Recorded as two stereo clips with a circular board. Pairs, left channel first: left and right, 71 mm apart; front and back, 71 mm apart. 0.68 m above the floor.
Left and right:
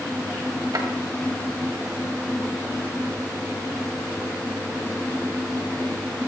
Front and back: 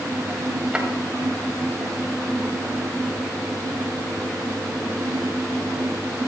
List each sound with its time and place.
0.7 s a drawer: 105° right, 2.0 m